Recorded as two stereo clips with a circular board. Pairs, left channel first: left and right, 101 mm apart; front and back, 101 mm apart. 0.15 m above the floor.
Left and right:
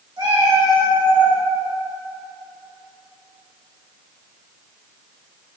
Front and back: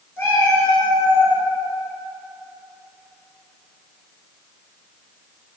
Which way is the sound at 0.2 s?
65° right.